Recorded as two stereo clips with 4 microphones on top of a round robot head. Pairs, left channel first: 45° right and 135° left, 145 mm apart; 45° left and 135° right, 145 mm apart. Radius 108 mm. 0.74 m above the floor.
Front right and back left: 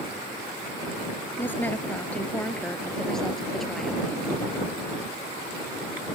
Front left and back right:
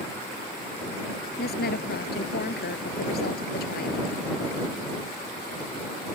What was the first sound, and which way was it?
A woman speaking, 35° left.